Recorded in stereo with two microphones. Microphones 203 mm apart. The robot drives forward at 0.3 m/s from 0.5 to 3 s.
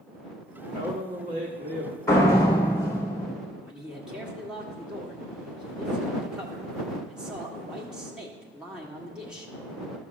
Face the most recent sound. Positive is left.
turn(degrees=-5)  # may be behind; listen again after turning